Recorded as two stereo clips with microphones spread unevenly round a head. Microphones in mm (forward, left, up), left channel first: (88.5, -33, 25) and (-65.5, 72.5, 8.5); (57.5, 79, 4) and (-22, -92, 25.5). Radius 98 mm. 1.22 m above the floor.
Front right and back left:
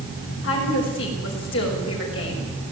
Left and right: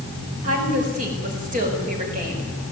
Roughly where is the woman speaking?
Ahead right.